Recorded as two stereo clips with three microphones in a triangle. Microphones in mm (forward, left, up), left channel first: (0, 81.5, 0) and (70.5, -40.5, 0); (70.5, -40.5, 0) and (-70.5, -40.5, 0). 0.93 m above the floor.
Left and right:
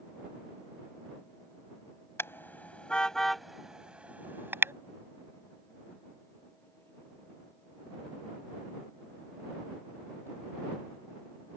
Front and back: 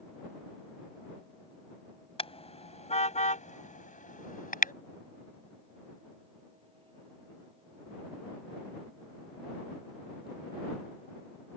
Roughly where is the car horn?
Ahead left.